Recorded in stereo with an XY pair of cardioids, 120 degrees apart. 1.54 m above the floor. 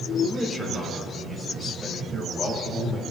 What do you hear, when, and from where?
0.2 s a man speaking: straight ahead, 3.5 m; by 3.0 s 15° left, 6.5 m